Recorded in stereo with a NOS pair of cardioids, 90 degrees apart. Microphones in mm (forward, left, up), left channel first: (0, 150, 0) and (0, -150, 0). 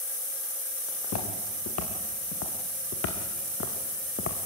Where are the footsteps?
60° left, 4.5 m; by 4.4 s 45° left, 2.5 m.